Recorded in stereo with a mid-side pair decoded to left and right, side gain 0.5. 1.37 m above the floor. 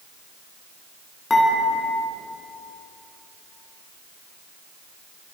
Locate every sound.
1.3 s dishes clattering: 20° left, 9 m